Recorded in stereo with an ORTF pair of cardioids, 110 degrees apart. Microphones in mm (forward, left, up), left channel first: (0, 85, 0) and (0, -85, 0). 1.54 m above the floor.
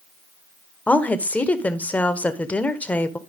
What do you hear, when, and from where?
0.9 s a woman speaking: 10° left, 1.4 m